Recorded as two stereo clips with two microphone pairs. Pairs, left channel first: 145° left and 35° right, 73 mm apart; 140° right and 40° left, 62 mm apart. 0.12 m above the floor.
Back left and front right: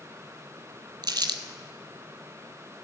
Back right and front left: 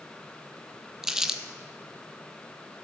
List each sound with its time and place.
1.0 s crumpling: 45° right, 0.7 m